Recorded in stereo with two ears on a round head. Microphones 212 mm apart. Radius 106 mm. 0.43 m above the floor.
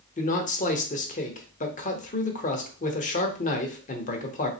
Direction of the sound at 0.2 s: 35° left (ahead or behind).